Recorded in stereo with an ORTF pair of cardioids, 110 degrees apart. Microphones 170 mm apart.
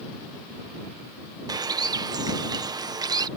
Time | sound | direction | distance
1.5 | a bird | 25° right | ?